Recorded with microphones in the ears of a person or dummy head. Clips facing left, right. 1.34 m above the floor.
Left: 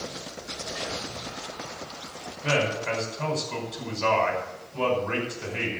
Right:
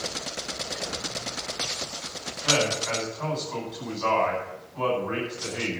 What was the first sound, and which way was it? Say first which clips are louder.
A man speaking: even; 40° left (ahead or behind).